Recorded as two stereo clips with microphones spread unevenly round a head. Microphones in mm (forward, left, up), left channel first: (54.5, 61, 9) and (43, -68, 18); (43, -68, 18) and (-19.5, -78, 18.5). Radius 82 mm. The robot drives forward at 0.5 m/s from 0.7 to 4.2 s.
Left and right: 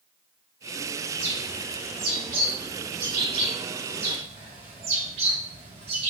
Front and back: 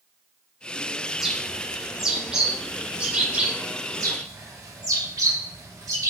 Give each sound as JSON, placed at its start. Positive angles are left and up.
{"t": 1.1, "sound": "a bird", "azimuth_deg": -90, "distance_m": 4.0}
{"t": 3.9, "sound": "a bird", "azimuth_deg": -150, "distance_m": 2.0}